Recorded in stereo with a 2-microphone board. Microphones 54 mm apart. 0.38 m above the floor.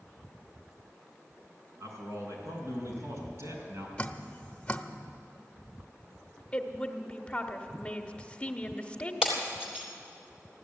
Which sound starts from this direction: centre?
Breaking glass, at 9.2 s.